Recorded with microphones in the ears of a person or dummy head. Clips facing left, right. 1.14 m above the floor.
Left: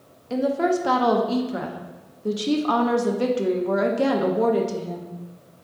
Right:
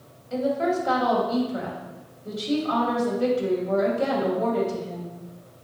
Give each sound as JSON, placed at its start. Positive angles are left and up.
{"t": 0.3, "sound": "a woman speaking", "side_deg": 80, "distance_m": 0.7}